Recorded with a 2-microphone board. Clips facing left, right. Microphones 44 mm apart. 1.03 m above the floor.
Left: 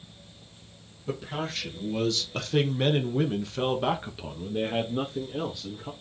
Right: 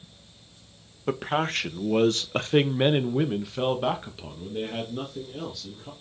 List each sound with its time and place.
1.1 s a man speaking: 60° right (ahead or behind), 1.2 m; by 5.9 s 25° left (ahead or behind), 2.0 m